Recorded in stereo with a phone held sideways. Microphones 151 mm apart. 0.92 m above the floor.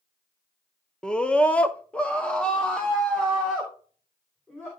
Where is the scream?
5° left (ahead or behind), 0.8 m.